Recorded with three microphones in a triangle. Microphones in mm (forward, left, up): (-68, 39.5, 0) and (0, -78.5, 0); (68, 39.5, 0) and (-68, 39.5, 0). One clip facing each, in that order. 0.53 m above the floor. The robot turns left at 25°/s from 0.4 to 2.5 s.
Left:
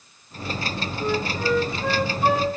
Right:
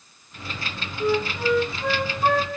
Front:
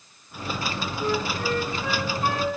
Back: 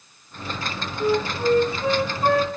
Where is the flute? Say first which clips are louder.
Right 3 dB, back 6 dB; 130° right, 1.1 m; by 2.5 s 165° right, 1.1 m.